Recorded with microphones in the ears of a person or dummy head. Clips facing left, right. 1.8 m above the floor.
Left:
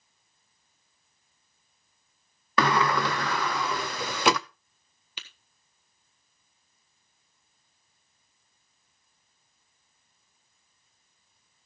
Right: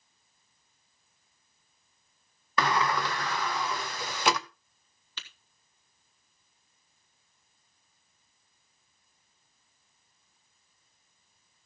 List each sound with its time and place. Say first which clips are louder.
2.6 s a sliding door: left 3 dB; 60° left (ahead or behind), 0.6 m
5.2 s tapping: left 1 dB; 20° left (ahead or behind), 1.7 m